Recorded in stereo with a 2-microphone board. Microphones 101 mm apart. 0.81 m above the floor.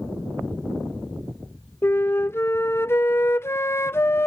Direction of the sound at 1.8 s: 25° left (ahead or behind).